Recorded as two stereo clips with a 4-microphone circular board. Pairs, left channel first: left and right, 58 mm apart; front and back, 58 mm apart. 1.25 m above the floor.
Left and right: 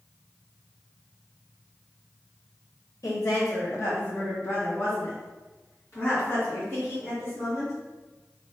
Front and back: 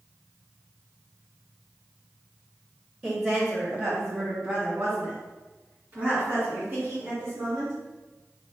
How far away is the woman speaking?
About 0.7 m.